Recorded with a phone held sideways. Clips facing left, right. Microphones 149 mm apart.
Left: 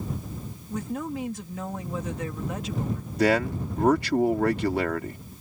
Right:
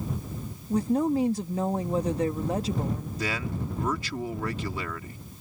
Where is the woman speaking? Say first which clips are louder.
Right 8 dB; 35° right (ahead or behind).